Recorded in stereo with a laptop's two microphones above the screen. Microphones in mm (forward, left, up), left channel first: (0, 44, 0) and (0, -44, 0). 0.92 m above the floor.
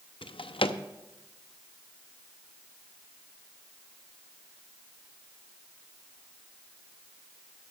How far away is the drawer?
About 0.6 m.